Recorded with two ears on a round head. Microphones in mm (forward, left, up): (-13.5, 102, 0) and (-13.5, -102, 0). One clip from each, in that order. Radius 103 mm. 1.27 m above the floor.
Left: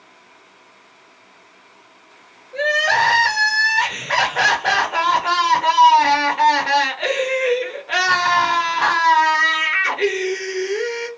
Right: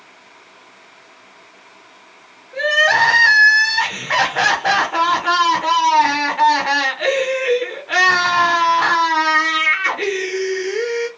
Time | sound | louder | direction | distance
2.5 | crying | right 3 dB | 5° right (ahead or behind) | 0.7 m